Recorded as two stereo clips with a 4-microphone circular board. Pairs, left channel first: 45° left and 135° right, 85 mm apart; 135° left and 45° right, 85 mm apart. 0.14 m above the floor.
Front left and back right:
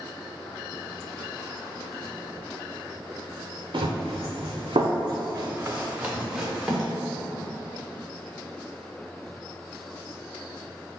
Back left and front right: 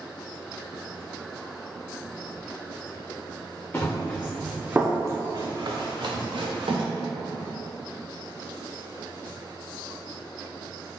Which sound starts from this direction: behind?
Running footsteps, at 3.7 s.